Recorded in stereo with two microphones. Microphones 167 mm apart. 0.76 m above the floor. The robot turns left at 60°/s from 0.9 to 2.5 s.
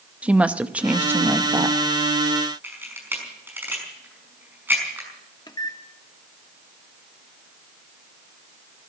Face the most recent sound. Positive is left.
turn(degrees=25)  # may be behind; listen again after turning